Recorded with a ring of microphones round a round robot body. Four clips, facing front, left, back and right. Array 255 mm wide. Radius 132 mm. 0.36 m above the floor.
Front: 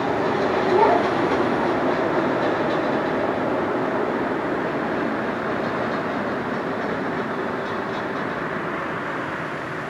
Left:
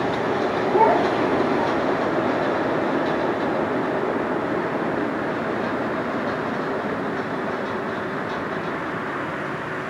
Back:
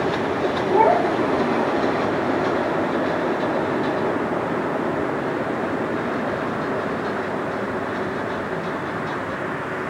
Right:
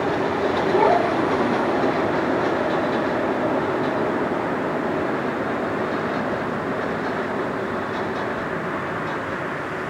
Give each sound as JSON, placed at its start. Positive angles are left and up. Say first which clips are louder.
{"t": 0.7, "sound": "a child speaking", "louder": "left 1 dB, back 2 dB", "azimuth_deg": 175, "distance_m": 2.0}